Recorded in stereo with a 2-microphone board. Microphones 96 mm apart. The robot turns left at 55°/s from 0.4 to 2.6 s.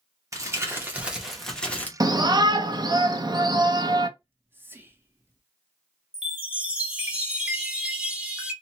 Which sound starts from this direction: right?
Whispering, at 4.2 s.